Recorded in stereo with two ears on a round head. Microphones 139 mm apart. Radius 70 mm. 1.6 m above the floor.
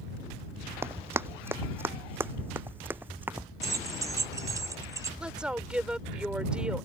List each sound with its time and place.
0.8 s running footsteps: 15° right (ahead or behind); by 3.5 s 10° right (ahead or behind)
3.6 s keys jangling: 20° right (ahead or behind)
5.2 s a woman speaking: 5° right (ahead or behind)